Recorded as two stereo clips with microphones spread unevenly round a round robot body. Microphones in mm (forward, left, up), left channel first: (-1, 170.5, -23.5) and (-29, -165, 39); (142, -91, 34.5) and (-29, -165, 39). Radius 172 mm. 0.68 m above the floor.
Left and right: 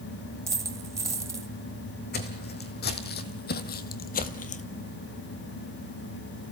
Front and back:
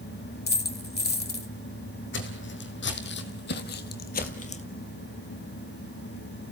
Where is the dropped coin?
15° right, 1.4 m.